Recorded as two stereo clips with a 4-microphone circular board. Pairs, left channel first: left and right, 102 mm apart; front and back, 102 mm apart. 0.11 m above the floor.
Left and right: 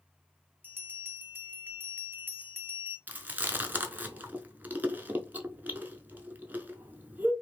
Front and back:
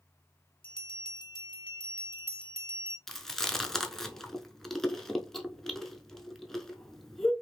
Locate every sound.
0.6 s a bell: 25° right, 0.6 m
3.1 s chewing: 75° right, 0.5 m